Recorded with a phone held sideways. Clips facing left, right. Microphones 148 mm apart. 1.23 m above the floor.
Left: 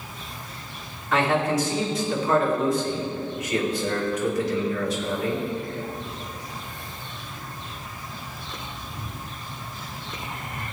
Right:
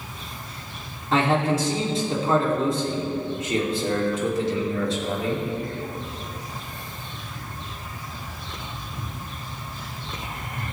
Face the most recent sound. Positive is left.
turn(degrees=-30)  # may be behind; listen again after turning